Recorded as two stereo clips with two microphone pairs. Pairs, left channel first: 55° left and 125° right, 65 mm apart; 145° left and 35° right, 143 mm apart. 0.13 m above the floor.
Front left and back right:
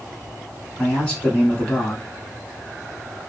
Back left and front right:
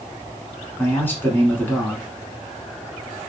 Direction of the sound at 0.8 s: 90° left.